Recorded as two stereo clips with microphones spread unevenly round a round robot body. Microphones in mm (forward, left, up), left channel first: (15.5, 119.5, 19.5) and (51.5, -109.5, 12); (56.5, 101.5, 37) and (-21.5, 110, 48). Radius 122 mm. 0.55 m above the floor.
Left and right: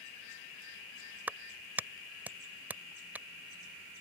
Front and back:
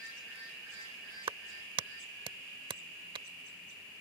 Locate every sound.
1.3 s a clap: 165° right